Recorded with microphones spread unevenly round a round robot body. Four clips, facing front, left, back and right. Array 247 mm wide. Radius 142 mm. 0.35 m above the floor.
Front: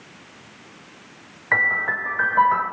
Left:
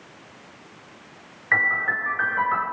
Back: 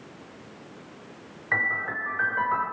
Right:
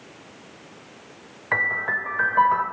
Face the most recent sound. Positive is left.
turn(degrees=-70)